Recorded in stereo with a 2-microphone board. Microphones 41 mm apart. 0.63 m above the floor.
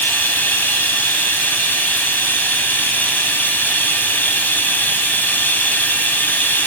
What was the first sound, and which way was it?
Running water, 55° left (ahead or behind).